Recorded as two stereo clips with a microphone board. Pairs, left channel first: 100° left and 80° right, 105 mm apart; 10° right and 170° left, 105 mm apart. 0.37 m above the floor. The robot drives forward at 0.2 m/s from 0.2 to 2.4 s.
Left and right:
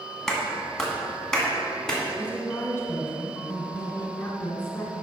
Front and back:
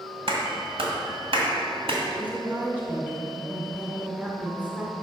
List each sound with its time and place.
0.3 s a clap: 175° right, 1.7 m
2.1 s a woman speaking: 120° left, 1.2 m; by 4.9 s 125° left, 1.2 m